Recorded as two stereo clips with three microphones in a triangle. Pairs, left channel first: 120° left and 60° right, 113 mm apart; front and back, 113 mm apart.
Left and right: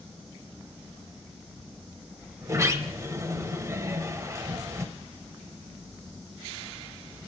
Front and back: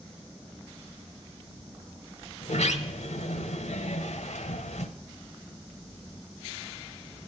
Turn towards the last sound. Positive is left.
turn(degrees=5)